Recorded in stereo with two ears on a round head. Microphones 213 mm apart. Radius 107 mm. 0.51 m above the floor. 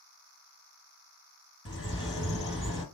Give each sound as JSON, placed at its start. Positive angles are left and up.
{"t": 1.6, "sound": "a bird", "side_deg": 20, "distance_m": 2.5}